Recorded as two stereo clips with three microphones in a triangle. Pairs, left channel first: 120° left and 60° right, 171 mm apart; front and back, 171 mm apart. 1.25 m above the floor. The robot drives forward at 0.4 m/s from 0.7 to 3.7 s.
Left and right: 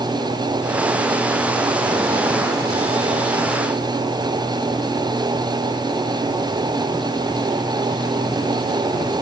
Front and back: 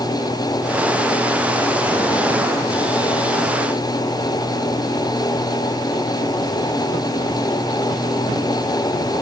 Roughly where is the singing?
I don't hear singing.